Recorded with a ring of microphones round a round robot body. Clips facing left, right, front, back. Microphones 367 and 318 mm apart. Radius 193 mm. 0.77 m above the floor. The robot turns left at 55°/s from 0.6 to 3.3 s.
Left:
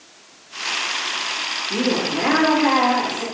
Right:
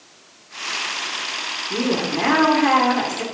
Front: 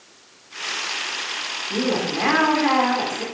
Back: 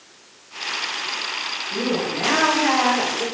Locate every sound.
1.7 s a woman speaking: 10° left, 3 m; by 3.2 s 75° right, 3 m